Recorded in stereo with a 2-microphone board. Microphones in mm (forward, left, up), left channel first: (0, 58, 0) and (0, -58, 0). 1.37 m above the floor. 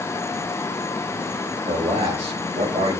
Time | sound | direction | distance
1.7 | a man speaking | 60° right (ahead or behind) | 3.5 m